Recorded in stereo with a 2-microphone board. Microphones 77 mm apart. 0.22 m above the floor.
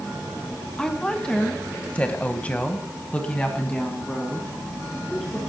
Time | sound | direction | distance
0.8 | a woman speaking | 10° left (ahead or behind) | 2 m